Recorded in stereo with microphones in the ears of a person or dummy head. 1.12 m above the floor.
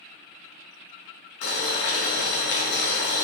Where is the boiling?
70° left (ahead or behind), 1.1 m.